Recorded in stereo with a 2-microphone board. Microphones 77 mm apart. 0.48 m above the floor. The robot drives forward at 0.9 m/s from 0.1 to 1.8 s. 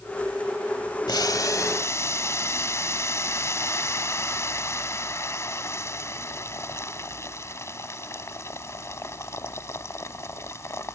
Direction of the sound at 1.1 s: 65° left (ahead or behind).